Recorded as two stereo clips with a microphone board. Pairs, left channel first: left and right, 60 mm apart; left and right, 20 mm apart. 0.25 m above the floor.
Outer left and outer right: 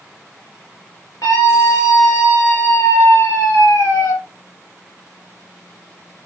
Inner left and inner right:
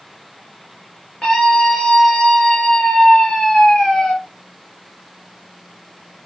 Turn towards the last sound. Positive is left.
turn(degrees=55)  # may be behind; listen again after turning